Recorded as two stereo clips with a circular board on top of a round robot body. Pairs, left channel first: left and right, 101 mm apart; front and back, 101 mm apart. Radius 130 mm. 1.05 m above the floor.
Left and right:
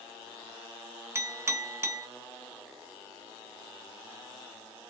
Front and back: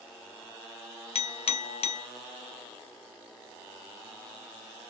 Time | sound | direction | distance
1.1 | a clink | 25° right | 0.7 m